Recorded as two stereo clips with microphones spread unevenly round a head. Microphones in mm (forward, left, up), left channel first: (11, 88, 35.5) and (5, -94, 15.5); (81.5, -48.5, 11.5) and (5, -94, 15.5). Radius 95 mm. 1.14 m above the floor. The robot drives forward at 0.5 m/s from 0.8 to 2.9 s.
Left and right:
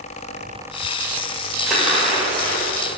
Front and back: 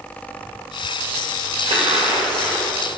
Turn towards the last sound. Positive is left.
turn(degrees=175)